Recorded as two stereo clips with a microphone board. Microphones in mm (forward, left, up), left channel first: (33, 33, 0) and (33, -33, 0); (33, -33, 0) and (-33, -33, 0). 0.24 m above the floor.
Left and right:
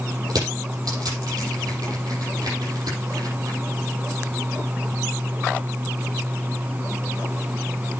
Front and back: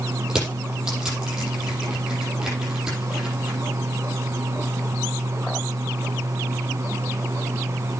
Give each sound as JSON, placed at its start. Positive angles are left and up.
{"t": 0.3, "sound": "crushing", "azimuth_deg": -100, "distance_m": 6.5}